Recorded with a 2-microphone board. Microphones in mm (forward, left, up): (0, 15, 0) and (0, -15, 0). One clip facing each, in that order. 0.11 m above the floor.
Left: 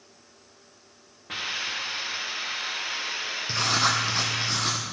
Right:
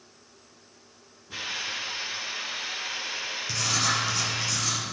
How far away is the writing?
About 1.1 m.